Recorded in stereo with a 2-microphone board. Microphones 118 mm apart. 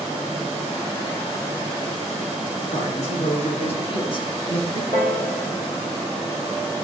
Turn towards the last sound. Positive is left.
turn(degrees=50)  # may be behind; listen again after turning